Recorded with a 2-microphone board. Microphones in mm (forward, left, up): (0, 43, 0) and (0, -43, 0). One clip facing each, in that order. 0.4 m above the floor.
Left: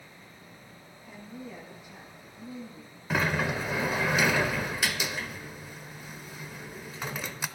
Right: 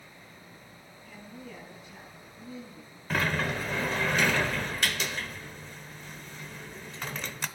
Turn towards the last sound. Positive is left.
turn(degrees=10)  # may be behind; listen again after turning